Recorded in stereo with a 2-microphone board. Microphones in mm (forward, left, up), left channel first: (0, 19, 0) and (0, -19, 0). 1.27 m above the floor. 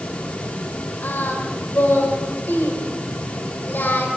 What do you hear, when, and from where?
1.0 s singing: 55° left (ahead or behind), 5 m